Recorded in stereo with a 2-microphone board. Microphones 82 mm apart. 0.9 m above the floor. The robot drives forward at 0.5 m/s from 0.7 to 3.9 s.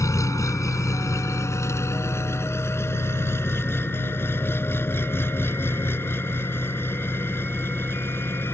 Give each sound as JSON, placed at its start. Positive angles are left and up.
{"t": 0.0, "sound": "an engine running", "side_deg": 40}